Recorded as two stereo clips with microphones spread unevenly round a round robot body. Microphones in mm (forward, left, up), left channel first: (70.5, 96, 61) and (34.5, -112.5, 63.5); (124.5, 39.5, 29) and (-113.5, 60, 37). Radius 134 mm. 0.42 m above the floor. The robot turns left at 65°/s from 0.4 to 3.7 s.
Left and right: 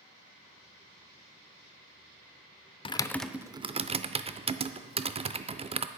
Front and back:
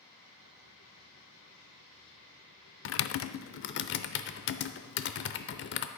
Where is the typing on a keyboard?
15° left, 0.6 m; by 5.9 s 40° right, 0.6 m.